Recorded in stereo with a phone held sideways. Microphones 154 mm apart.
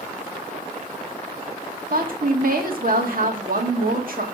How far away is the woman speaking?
About 2.0 m.